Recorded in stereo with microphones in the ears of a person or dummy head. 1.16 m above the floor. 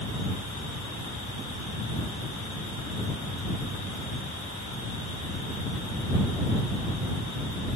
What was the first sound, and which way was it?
Only background noise.